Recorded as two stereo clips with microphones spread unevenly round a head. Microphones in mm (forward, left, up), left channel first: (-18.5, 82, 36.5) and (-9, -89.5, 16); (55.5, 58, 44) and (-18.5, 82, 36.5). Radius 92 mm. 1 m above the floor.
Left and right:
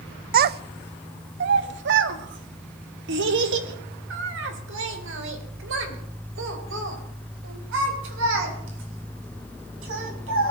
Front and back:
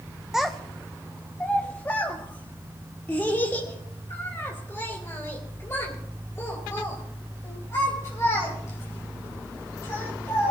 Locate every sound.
0.3 s a child speaking: 115° right, 0.6 m; by 10.5 s 90° right, 7 m